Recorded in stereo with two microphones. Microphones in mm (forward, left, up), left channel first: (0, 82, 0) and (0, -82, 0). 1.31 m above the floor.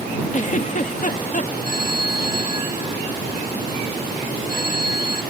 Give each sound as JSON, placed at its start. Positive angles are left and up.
{"t": 0.3, "sound": "a giggle", "side_deg": 50}
{"t": 1.6, "sound": "a phone ringing", "side_deg": 60}